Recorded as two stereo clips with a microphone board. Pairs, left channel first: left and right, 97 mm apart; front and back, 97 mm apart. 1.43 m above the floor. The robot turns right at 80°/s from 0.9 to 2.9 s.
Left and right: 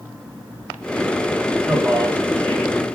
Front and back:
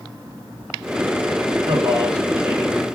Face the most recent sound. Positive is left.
turn(degrees=-75)